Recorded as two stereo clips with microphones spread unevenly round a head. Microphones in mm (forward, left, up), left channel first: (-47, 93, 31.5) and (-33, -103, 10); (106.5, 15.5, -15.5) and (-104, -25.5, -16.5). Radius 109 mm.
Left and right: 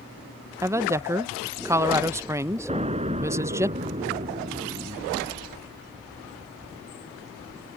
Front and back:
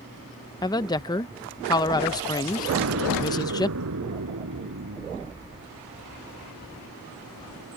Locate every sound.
0.6 s a woman speaking: 40° right
2.7 s an explosion: 145° right